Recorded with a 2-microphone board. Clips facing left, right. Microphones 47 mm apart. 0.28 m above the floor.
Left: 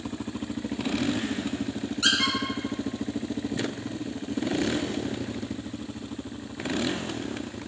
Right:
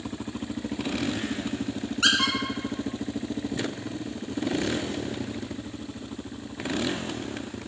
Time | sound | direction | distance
2.0 | a squeak | 45° right (ahead or behind) | 1.7 m